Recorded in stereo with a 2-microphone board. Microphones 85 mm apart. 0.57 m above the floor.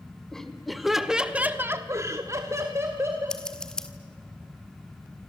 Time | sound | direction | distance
0.3 | laughter | 5° left (ahead or behind) | 2.5 m
3.3 | scissors | 10° left (ahead or behind) | 1.7 m